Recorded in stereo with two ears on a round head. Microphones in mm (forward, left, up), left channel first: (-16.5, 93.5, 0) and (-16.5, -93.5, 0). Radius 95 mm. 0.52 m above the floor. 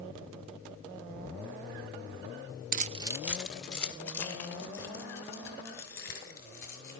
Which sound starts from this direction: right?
Keys jangling, at 2.7 s.